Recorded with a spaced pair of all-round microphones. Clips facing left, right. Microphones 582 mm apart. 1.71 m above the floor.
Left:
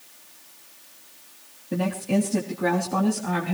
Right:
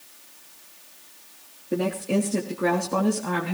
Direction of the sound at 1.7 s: 25° left (ahead or behind).